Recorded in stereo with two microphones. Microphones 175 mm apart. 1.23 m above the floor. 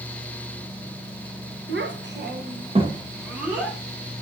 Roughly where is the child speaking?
Right.